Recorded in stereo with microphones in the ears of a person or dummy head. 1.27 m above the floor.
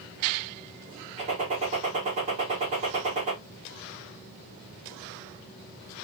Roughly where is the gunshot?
Right.